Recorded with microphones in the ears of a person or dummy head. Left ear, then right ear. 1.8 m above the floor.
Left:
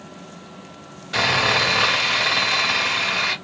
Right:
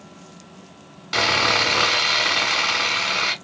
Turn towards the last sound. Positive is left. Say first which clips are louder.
# even
turn(degrees=-60)  # may be behind; listen again after turning